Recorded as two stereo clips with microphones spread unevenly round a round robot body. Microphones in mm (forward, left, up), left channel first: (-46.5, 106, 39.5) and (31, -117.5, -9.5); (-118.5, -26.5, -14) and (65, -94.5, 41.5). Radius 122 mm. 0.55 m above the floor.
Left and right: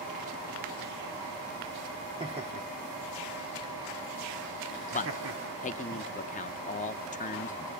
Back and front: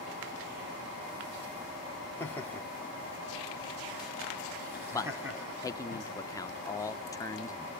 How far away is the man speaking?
About 1.0 m.